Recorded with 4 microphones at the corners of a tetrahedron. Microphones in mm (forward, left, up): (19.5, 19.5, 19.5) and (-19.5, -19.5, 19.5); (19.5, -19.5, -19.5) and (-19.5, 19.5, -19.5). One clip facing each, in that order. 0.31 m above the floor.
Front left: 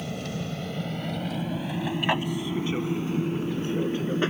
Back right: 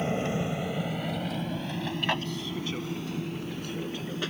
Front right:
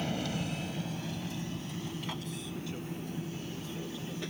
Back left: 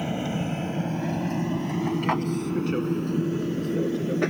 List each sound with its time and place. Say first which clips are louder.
0.0 s an aircraft: back right 4 dB, back left 6 dB; 165° right; by 4.3 s 105° left